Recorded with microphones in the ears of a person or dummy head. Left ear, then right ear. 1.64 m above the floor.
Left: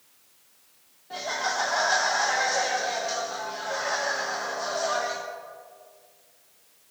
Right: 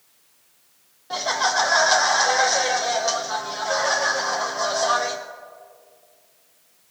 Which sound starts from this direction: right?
Laughter, at 1.1 s.